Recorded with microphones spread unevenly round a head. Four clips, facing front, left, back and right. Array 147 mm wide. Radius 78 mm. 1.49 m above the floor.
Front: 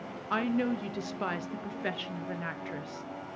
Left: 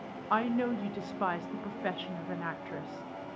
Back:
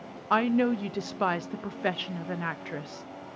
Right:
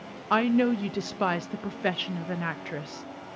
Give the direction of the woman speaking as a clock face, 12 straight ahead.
5 o'clock.